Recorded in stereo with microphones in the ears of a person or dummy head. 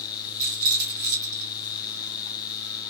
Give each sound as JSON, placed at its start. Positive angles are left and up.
{"t": 0.4, "sound": "a rattle", "side_deg": -70, "distance_m": 1.5}